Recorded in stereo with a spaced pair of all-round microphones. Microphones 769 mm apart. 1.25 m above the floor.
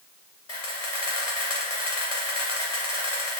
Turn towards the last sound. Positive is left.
turn(degrees=50)  # may be behind; listen again after turning